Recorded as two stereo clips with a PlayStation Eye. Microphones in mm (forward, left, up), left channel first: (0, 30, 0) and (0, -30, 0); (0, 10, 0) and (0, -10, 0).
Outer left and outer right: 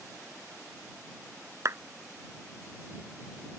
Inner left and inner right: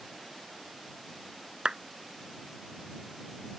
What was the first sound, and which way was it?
A clap, 55° right (ahead or behind).